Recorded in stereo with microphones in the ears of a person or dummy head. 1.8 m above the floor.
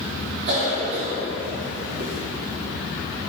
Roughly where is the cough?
Right.